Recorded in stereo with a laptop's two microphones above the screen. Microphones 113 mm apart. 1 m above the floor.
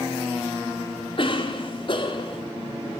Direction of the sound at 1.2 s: 50° left (ahead or behind).